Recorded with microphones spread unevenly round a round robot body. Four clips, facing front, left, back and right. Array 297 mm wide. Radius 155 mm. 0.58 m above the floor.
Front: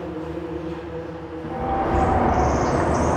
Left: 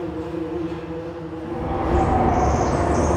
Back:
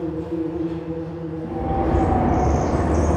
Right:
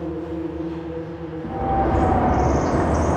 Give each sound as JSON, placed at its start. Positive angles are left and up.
{"t": 0.0, "sound": "an insect", "azimuth_deg": 175, "distance_m": 3.0}
{"t": 1.4, "sound": "a bird", "azimuth_deg": -115, "distance_m": 1.0}